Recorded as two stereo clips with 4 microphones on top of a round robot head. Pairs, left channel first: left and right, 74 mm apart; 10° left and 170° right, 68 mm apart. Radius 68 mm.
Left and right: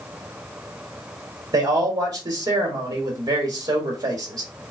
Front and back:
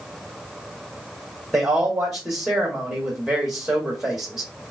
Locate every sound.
1.5 s a man speaking: 95° right, 1.2 m